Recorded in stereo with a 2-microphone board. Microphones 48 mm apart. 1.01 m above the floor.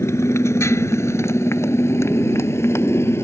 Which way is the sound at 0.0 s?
75° left (ahead or behind).